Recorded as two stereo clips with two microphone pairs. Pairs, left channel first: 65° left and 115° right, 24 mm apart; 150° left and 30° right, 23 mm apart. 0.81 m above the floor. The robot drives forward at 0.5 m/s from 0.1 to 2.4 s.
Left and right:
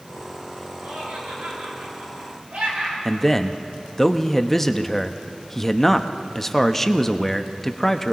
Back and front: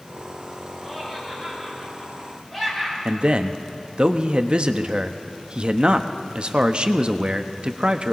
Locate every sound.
0.8 s laughter: 120° right, 7 m; by 3.0 s 130° right, 7 m
3.0 s a man speaking: 5° right, 0.7 m